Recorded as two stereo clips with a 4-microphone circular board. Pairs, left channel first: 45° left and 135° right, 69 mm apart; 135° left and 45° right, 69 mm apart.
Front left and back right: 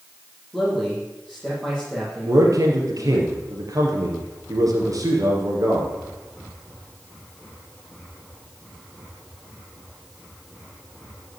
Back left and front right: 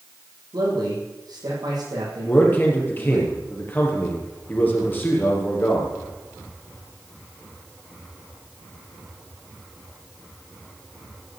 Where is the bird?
I don't hear a bird.